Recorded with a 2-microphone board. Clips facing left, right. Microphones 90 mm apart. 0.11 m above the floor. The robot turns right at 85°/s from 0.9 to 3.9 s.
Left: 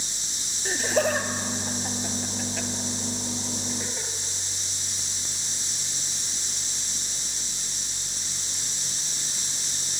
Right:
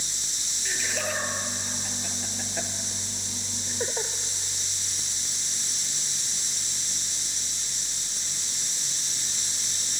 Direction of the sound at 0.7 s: 45° left (ahead or behind).